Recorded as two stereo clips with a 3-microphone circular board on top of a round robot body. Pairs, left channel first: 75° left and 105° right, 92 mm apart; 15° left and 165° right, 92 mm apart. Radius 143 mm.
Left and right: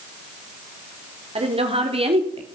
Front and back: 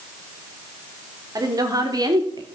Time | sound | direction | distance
1.4 | a woman speaking | 110° right | 3.5 m